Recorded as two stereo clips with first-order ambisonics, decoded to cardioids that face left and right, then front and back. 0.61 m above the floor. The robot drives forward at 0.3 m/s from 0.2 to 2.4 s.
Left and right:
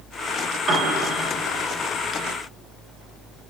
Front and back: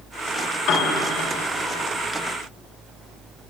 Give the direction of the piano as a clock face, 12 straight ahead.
1 o'clock.